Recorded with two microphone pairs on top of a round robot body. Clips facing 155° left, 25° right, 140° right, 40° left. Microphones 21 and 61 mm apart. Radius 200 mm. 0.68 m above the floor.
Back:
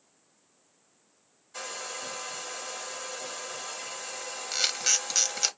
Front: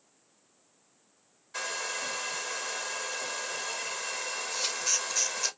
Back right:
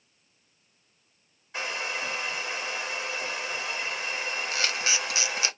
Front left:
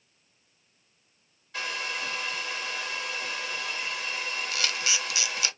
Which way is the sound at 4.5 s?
170° left.